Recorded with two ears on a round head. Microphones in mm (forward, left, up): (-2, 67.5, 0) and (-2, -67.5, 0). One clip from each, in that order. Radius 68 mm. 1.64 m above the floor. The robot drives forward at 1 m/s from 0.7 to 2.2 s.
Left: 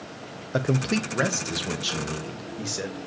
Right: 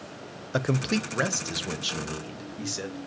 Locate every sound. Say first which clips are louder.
0.5 s a man speaking: left 2 dB; 30° right (ahead or behind), 0.7 m; by 3.0 s 10° right (ahead or behind), 2 m